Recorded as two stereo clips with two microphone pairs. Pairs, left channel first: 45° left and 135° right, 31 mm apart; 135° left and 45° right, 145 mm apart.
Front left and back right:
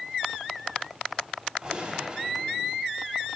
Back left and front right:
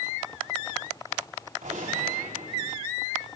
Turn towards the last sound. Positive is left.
turn(degrees=-70)